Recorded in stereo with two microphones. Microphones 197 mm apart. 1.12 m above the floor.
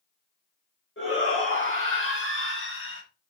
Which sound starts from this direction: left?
A shout, at 1.0 s.